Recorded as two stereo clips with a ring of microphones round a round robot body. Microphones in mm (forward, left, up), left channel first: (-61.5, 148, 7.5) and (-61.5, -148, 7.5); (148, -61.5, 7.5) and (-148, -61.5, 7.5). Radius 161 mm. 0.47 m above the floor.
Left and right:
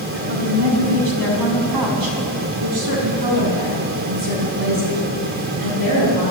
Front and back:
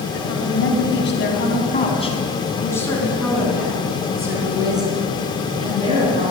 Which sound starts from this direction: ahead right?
A woman speaking, at 0.1 s.